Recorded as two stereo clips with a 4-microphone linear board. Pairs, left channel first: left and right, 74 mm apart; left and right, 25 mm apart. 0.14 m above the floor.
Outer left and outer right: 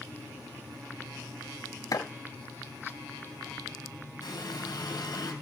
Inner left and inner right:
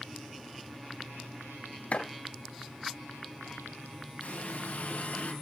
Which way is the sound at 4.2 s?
65° left (ahead or behind).